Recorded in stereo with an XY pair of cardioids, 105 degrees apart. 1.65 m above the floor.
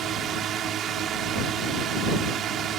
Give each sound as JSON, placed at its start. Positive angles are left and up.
{"t": 0.0, "sound": "a drone", "azimuth_deg": -65}